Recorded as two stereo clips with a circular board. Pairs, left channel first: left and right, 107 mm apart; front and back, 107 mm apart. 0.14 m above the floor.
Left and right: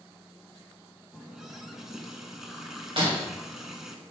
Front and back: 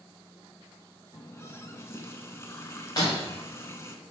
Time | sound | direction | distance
1.1 | a running tap | 10° right | 0.7 m
3.0 | breaking glass | 55° right | 2 m